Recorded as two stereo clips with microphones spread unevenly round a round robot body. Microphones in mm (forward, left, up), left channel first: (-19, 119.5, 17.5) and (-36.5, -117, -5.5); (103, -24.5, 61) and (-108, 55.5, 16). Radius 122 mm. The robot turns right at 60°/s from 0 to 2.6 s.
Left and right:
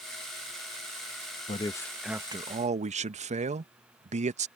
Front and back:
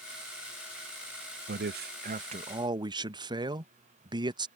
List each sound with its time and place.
1.5 s a man speaking: 150° left; by 4.5 s 145° right